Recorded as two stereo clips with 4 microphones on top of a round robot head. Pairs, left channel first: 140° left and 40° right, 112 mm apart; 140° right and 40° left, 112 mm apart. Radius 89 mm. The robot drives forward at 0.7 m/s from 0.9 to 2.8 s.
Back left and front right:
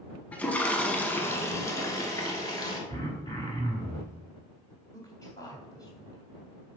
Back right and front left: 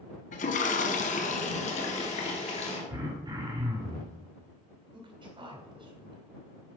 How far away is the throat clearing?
About 2.5 m.